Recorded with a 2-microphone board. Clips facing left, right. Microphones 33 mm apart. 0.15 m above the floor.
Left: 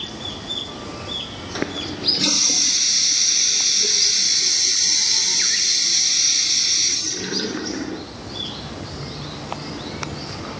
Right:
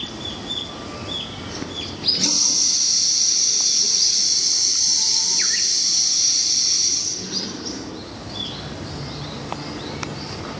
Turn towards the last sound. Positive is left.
turn(degrees=50)  # may be behind; listen again after turning